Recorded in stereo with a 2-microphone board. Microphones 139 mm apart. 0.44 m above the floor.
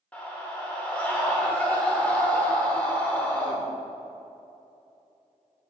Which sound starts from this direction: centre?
A scream, at 0.1 s.